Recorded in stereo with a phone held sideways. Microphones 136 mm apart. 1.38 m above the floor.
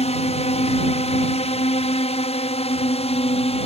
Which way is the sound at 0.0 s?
50° left (ahead or behind).